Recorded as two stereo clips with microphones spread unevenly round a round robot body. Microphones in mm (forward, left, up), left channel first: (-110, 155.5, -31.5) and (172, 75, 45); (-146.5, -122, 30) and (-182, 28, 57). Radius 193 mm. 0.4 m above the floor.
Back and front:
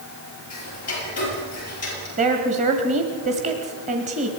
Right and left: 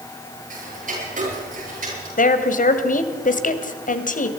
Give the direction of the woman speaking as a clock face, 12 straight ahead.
3 o'clock.